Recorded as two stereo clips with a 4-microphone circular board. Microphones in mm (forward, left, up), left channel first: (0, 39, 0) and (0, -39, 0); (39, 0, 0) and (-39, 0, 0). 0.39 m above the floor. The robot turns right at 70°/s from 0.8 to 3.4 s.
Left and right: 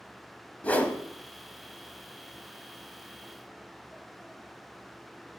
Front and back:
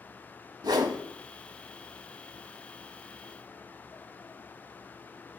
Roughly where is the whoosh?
Behind.